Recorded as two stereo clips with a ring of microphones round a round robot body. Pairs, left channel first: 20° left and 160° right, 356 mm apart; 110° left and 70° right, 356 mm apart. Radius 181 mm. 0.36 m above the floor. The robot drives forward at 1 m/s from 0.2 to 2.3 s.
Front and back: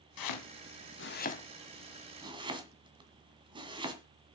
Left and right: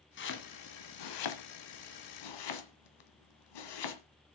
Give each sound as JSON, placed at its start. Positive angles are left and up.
{"t": 0.2, "sound": "chopping", "azimuth_deg": 55, "distance_m": 1.9}